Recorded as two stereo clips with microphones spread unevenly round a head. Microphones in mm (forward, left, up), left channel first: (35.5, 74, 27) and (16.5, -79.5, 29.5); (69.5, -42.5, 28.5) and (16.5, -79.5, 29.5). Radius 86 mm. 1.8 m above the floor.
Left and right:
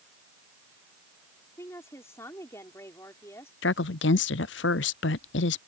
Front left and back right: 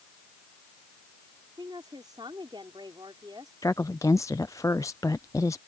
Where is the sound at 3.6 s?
105° left.